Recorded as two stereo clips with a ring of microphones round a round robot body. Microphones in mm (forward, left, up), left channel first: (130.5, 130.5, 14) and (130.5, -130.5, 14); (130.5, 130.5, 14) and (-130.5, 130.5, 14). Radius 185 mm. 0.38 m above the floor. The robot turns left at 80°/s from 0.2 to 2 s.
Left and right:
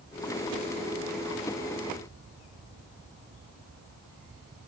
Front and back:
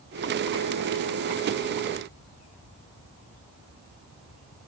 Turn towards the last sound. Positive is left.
No sound to turn to.